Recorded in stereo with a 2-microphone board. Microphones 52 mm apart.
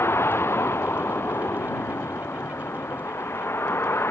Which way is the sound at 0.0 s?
50° left (ahead or behind).